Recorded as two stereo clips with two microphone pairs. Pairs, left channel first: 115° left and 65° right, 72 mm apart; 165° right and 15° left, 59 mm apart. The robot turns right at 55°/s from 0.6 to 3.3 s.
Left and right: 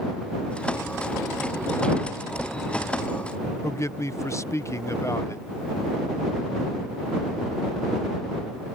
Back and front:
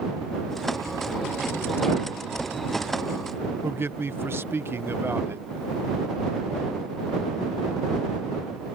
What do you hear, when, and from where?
3.6 s a man speaking: 65° left